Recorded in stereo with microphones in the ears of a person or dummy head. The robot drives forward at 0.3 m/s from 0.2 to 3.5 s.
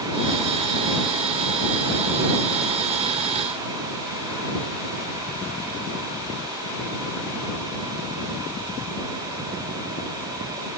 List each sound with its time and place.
Only background noise.